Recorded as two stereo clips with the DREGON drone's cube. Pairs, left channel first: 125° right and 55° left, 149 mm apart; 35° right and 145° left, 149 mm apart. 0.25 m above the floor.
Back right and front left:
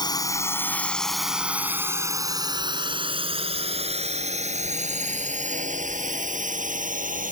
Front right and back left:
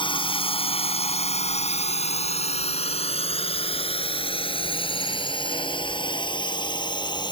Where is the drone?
75° right; by 7.3 s 25° left.